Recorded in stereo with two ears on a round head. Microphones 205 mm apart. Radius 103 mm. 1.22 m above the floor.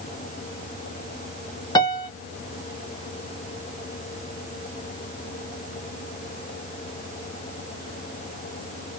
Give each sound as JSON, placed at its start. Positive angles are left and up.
{"t": 1.8, "sound": "a piano", "side_deg": 20, "distance_m": 0.6}